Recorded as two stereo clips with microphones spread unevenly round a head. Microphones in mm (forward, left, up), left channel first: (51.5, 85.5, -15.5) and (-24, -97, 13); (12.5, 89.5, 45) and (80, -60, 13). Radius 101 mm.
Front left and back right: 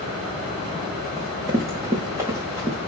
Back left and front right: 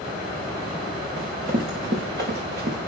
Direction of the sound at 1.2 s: 40° right.